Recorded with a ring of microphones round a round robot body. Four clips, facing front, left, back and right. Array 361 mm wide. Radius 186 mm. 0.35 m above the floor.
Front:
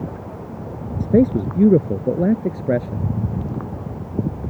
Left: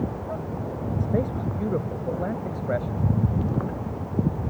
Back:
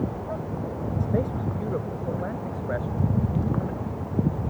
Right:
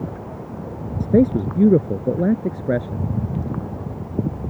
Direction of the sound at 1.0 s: 45° right.